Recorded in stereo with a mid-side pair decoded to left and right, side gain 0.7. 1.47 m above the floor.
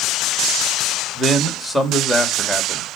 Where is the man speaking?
5° right, 2.5 m.